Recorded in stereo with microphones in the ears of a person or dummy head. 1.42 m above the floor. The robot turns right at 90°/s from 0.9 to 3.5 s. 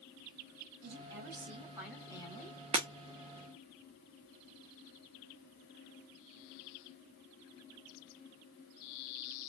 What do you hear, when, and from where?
0.8 s a woman speaking: 95° right, 2.5 m; by 2.6 s 55° left, 2.5 m
2.7 s breaking glass: 15° right (ahead or behind), 0.9 m; by 2.9 s 20° right (ahead or behind), 0.9 m